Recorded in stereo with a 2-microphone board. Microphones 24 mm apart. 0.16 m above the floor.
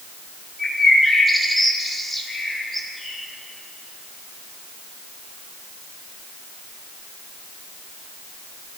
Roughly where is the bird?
Centre.